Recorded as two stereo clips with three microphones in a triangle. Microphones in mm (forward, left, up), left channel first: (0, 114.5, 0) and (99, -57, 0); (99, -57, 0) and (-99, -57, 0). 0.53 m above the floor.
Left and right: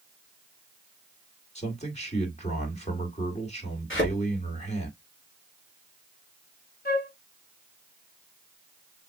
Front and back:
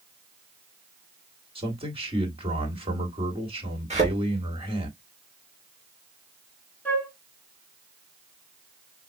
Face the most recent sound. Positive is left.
turn(degrees=80)